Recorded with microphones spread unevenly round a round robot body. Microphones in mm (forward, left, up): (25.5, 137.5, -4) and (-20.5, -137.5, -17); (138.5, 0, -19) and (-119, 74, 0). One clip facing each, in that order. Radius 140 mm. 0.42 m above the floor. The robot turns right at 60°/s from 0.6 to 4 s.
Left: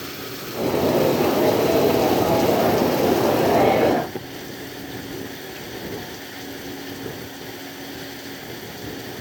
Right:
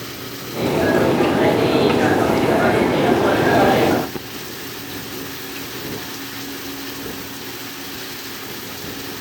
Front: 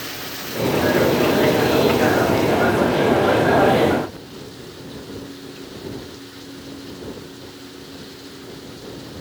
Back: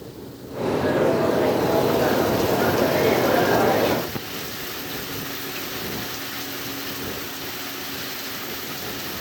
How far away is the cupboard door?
I don't hear a cupboard door.